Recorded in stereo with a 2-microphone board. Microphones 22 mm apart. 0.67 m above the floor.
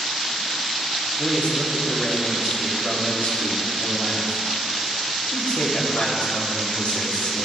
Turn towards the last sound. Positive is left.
turn(degrees=65)  # may be behind; listen again after turning